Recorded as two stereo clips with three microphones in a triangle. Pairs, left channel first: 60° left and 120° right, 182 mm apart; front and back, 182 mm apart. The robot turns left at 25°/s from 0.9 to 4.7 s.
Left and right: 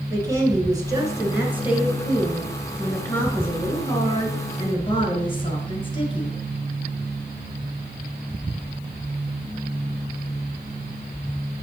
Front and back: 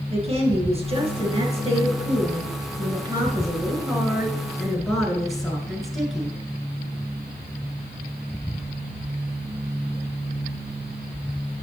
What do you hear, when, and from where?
0.1 s a woman speaking: 175° right, 1.6 m; by 6.3 s 90° left, 1.6 m